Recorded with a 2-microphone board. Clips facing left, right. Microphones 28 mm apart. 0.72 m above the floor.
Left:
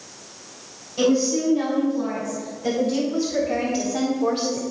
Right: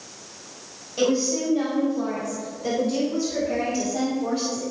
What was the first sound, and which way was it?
A woman speaking, 20° right (ahead or behind).